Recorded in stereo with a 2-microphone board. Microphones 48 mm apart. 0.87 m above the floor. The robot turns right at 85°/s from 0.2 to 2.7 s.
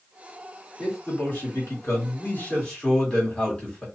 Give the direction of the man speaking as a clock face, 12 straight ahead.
12 o'clock.